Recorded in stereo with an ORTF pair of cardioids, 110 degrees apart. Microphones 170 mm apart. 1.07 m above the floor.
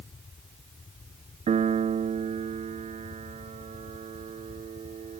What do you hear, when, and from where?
0.0 s a fan: 25° left
1.5 s a piano: 40° right